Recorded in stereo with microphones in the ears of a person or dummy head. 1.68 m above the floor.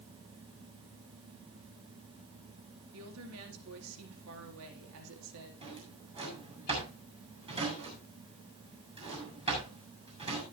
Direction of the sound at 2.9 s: 85° right.